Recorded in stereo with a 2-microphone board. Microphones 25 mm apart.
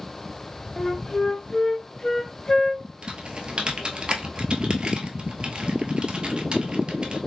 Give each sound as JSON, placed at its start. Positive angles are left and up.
{"t": 0.8, "sound": "a flute", "side_deg": 15, "distance_m": 0.5}
{"t": 3.0, "sound": "typing on a keyboard", "side_deg": -35, "distance_m": 0.8}